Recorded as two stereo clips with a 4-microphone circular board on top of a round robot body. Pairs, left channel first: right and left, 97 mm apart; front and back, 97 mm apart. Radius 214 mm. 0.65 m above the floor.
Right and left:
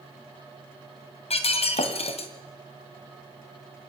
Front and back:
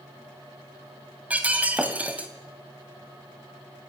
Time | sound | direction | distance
1.3 | breaking glass | 105° right | 2 m